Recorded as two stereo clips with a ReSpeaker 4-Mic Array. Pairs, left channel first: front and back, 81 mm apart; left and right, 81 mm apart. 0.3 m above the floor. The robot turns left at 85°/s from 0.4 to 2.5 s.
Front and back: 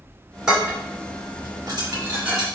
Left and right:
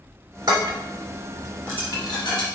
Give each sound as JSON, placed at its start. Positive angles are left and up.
{"t": 0.5, "sound": "dishes clattering", "azimuth_deg": -100, "distance_m": 2.0}